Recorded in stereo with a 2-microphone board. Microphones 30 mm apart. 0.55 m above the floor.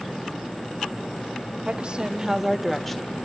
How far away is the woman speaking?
About 2 m.